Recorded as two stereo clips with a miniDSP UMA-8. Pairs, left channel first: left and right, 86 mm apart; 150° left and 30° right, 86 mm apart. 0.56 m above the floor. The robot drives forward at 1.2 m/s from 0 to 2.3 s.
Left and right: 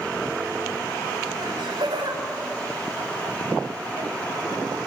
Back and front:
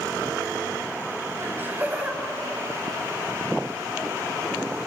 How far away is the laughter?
About 4 m.